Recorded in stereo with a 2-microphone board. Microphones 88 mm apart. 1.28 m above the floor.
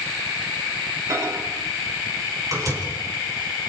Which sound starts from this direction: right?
A microwave, at 1.1 s.